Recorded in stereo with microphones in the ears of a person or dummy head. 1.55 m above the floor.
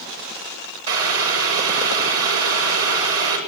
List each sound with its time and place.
0.9 s boiling: 85° right, 8.5 m